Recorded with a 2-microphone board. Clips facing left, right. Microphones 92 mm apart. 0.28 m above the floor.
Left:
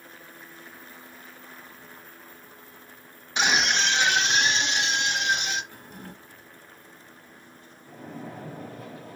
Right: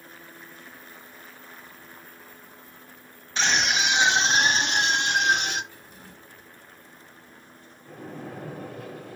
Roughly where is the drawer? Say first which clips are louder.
Left 5 dB; left.